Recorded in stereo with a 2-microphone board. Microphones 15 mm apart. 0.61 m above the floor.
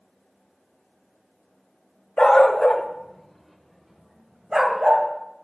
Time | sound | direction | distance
2.2 | a dog barking | 60° left (ahead or behind) | 1.2 m